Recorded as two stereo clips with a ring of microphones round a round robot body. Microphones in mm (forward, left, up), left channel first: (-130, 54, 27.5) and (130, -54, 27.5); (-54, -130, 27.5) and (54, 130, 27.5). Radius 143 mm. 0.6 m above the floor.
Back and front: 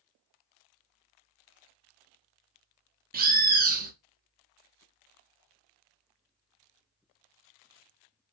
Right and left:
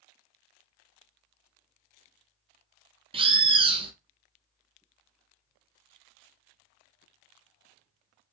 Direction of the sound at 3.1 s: 10° left.